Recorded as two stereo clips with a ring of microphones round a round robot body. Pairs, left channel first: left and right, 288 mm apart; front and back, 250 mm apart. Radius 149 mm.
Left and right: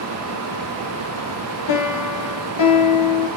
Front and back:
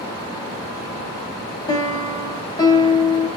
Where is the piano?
70° left, 3.5 m.